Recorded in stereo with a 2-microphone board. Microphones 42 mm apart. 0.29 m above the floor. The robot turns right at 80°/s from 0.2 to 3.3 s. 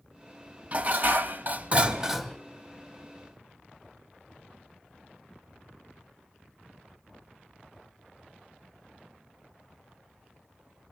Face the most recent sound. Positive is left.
turn(degrees=80)